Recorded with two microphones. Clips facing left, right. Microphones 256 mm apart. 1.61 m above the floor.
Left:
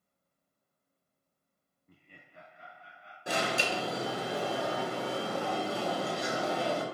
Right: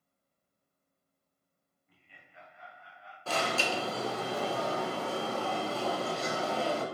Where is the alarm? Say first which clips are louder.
Even; 15° left (ahead or behind), 1.4 m.